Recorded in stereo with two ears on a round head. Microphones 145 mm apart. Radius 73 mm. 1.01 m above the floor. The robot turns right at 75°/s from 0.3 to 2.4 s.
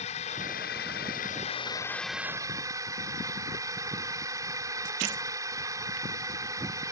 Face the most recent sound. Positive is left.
turn(degrees=-155)